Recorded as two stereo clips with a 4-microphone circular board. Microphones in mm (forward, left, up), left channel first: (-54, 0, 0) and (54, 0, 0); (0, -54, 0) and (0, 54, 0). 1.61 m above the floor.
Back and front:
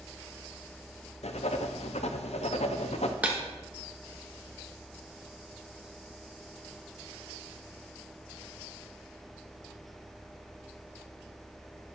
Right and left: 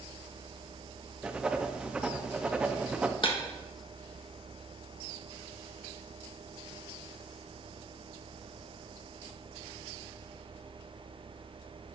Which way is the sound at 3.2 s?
75° right.